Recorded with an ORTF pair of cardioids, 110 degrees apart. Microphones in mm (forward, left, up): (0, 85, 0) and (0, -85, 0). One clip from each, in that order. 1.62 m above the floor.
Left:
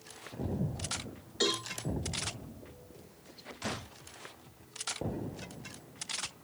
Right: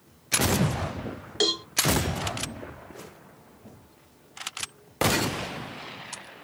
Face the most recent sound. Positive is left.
turn(degrees=-55)